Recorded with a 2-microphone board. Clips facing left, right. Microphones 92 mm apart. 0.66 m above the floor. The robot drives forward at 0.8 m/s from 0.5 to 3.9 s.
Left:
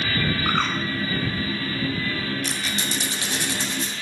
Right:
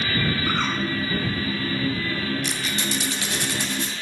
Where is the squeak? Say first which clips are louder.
Right 1 dB; 35° left (ahead or behind), 1.9 m; by 3.9 s 20° left (ahead or behind), 3 m.